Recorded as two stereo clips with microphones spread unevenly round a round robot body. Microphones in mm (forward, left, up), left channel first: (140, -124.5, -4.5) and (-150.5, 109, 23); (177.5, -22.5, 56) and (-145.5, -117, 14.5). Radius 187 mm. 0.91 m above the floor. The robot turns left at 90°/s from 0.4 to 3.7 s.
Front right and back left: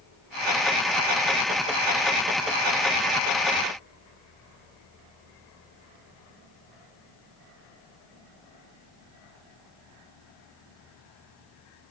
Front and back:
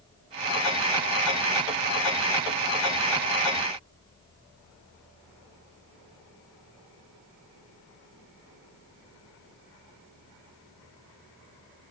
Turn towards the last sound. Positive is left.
No sound to turn to.